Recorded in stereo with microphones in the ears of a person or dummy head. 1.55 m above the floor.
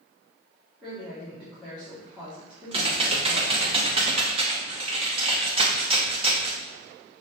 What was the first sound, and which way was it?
A woman speaking, centre (ahead or behind).